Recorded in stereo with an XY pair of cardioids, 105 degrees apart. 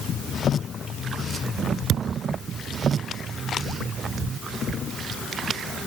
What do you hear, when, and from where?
1.9 s a thud: 65° right